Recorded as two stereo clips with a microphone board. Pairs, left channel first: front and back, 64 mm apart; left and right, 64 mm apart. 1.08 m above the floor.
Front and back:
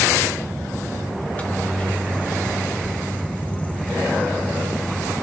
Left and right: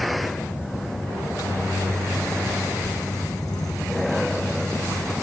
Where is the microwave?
65° left, 0.9 m.